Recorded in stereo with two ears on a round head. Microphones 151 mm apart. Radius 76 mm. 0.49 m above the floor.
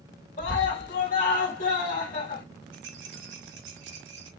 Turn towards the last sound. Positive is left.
turn(degrees=-80)